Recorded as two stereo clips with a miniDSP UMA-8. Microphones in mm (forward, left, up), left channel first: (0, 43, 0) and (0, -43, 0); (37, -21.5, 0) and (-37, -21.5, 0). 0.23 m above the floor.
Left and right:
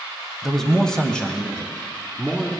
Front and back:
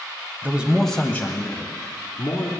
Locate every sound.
0.4 s a man speaking: straight behind, 1.1 m; by 2.5 s 20° left, 2.5 m